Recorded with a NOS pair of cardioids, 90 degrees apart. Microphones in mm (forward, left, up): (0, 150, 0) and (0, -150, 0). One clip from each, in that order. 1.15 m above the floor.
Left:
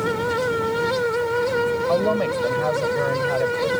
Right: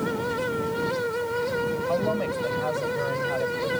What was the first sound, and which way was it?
A fan, 45° left.